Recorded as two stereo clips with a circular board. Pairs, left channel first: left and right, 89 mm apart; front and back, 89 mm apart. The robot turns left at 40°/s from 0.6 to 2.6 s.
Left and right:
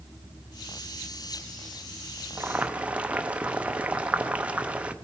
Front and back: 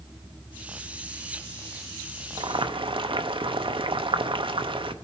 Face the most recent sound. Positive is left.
turn(degrees=-165)